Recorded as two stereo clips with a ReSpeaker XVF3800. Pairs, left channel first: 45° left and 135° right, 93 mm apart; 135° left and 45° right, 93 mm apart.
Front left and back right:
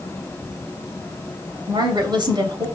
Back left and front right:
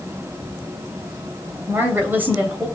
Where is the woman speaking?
110° right, 2.5 m.